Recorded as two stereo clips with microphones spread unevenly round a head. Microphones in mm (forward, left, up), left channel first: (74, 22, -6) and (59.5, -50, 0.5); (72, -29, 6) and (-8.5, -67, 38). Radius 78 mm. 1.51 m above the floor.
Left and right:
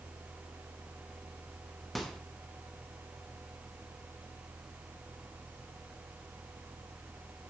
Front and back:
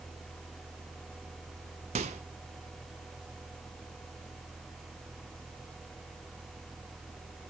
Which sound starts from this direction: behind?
A microwave, at 1.9 s.